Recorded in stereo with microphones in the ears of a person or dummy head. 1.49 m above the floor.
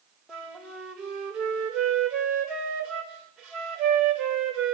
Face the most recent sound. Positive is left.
turn(degrees=5)  # may be behind; listen again after turning